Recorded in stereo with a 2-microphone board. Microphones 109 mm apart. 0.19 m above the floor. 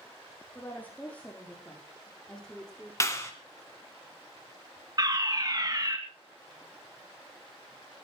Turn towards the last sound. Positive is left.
turn(degrees=-35)  # may be behind; listen again after turning